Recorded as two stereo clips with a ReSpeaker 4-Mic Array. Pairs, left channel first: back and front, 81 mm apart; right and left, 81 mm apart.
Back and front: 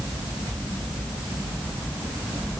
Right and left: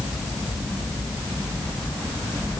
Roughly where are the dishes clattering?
I don't hear dishes clattering.